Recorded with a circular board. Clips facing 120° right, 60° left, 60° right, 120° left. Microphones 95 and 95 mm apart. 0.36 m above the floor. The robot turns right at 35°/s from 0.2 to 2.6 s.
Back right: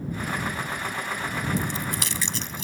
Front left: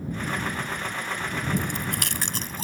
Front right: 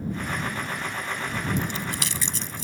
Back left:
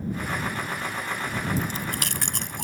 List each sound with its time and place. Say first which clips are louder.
1.6 s chewing: even, even; 70° left; by 2.6 s 110° left